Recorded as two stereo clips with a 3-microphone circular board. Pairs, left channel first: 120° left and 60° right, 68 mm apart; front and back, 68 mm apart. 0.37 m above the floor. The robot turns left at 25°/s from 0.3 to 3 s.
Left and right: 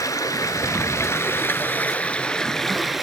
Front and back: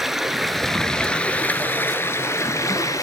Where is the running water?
95° left, 0.8 m; by 3.0 s 25° left, 0.8 m.